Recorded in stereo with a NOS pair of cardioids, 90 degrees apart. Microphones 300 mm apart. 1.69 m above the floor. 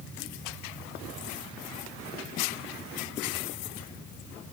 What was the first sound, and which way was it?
Only background noise.